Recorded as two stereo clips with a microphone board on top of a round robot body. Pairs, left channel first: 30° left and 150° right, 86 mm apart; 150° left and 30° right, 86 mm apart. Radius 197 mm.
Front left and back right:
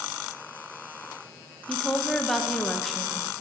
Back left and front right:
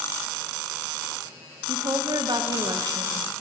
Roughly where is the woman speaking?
Ahead right.